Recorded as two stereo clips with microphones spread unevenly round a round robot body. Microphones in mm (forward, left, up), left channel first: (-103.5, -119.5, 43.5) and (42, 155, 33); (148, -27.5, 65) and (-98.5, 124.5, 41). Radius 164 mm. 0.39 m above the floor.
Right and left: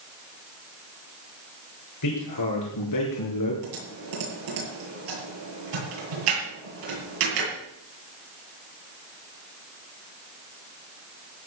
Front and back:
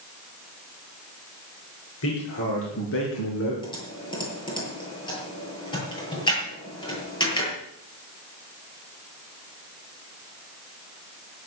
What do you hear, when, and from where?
2.0 s a man speaking: 80° right, 6.5 m; by 3.5 s 85° right, 5.5 m
3.6 s typing on a keyboard: 45° left, 9 m